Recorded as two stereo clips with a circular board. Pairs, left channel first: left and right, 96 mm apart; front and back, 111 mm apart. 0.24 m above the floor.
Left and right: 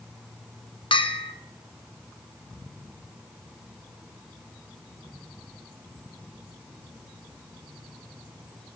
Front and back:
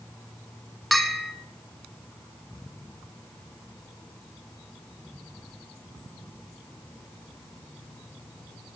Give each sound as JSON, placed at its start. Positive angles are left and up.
{"t": 0.9, "sound": "a bell", "azimuth_deg": 90, "distance_m": 1.3}